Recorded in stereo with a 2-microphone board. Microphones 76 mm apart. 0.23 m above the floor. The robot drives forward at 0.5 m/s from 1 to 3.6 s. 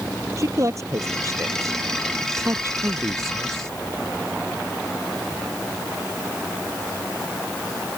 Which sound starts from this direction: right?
A man speaking, at 0.4 s.